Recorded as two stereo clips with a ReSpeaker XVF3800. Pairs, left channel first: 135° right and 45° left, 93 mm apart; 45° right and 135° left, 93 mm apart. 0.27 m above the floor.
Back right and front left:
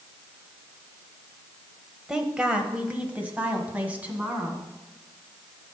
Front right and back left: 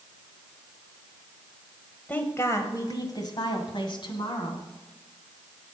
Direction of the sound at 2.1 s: 25° right.